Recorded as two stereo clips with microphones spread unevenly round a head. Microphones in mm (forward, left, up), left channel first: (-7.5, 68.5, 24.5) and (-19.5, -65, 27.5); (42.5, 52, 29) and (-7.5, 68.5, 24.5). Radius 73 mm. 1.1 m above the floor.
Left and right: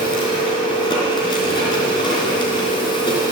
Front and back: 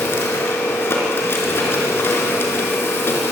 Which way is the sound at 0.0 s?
25° left.